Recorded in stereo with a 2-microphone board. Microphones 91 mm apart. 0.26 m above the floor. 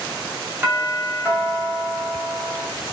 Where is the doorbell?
25° right (ahead or behind), 1.9 m.